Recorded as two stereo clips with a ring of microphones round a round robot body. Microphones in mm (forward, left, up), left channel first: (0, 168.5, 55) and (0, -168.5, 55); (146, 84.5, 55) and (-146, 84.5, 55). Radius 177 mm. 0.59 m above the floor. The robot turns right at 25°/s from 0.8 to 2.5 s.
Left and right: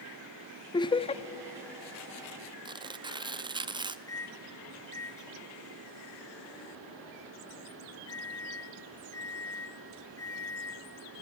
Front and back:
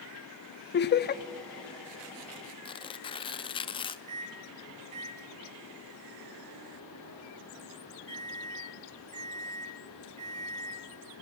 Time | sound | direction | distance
0.7 | laughter | 20° left | 0.7 m
2.6 | tearing paper | 40° right | 0.8 m
4.1 | a microwave | 170° left | 2.5 m